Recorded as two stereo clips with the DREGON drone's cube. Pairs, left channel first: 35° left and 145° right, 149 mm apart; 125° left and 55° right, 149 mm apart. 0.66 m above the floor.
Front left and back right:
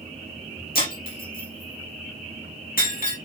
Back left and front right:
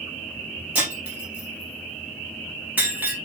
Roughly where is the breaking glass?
Ahead.